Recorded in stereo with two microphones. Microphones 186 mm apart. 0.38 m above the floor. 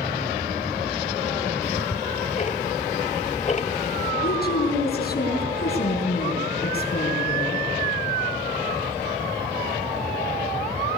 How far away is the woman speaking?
About 5 m.